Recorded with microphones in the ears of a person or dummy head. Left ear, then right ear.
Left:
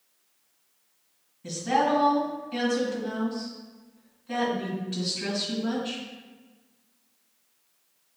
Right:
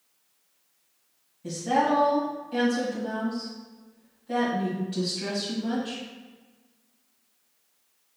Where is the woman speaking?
10° left (ahead or behind), 1.8 m.